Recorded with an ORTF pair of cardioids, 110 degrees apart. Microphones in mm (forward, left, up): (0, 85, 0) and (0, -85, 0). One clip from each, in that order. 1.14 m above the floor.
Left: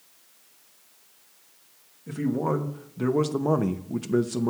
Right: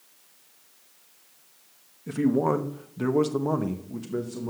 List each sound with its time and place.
2.1 s a man speaking: 25° right, 1.2 m; by 4.5 s 55° left, 0.9 m